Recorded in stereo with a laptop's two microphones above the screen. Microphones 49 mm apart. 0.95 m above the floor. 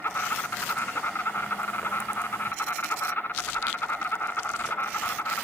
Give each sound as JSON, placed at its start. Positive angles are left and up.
{"t": 0.0, "sound": "an insect", "side_deg": 50, "distance_m": 1.3}